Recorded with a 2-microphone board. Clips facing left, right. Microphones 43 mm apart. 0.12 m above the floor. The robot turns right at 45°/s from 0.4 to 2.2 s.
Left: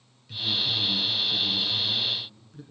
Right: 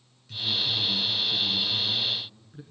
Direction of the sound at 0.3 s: 10° left (ahead or behind).